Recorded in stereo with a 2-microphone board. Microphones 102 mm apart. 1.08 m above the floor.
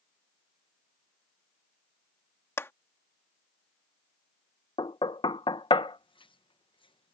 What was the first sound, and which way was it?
A clap, 25° left (ahead or behind).